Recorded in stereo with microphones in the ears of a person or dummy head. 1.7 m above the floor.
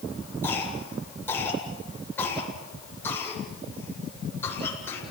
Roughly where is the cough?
Centre.